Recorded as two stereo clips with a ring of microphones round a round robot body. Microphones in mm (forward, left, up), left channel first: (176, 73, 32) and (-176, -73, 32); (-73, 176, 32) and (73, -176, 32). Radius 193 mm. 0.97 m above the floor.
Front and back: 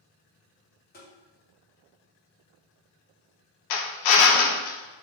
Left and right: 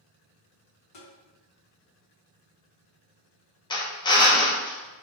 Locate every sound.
0.9 s tapping: 85° left, 1.3 m
3.7 s a drill: 35° left, 0.6 m